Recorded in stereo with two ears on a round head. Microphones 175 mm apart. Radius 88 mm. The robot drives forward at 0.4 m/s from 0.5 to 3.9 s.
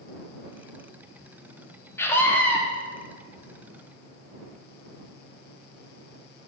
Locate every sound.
2.0 s a scream: 15° left (ahead or behind), 0.7 m; by 2.6 s 10° left (ahead or behind), 1.0 m